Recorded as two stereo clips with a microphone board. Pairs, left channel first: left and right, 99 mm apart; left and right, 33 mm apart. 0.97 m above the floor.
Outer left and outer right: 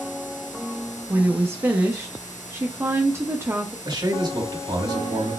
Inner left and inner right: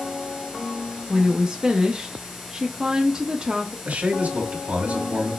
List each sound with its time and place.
1.1 s a woman speaking: 25° right (ahead or behind), 0.6 m
3.9 s a man speaking: 55° right (ahead or behind), 2 m